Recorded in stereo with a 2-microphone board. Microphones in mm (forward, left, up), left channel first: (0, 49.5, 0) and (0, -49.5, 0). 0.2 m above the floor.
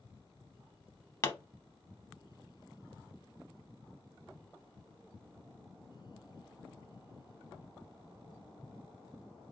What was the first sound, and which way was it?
A pop, 30° left (ahead or behind).